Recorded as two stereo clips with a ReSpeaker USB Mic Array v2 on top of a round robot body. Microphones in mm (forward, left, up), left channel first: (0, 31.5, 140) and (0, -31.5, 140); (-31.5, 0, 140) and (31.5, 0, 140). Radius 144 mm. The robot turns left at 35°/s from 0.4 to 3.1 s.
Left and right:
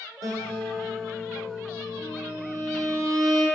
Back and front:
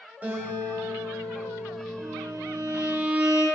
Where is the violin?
35° right, 3 m; by 3.5 s 70° right, 3 m.